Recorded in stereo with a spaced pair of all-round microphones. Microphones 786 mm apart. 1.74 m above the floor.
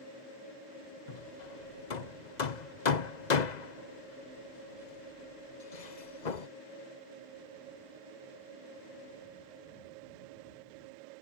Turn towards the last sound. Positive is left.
turn(degrees=60)  # may be behind; listen again after turning